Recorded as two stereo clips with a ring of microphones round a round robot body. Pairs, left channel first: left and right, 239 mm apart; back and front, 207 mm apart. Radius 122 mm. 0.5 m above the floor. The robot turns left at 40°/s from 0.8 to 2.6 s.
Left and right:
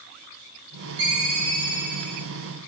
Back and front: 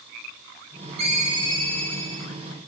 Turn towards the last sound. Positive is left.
turn(degrees=-115)